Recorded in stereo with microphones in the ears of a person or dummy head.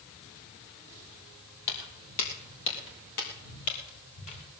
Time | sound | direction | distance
1.7 | footsteps | 65° left (ahead or behind) | 3.5 m